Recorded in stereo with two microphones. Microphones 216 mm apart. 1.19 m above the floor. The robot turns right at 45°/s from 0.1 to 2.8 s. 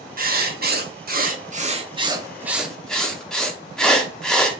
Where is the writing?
115° right, 0.5 m; by 4.6 s 5° left, 0.5 m.